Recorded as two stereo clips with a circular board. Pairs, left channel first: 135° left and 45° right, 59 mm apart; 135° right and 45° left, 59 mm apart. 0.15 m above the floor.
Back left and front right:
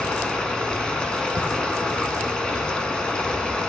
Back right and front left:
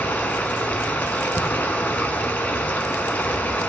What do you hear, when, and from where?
0.0 s running water: 165° right, 0.9 m